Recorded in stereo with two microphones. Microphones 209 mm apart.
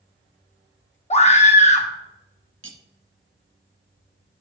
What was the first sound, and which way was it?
A scream, 30° left (ahead or behind).